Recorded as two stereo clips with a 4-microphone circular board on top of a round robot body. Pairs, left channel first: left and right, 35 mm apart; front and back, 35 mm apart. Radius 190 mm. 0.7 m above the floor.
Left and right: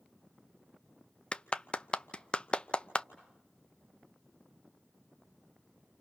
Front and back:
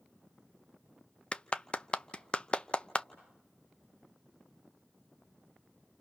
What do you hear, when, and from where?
1.3 s a clap: 45° left, 0.9 m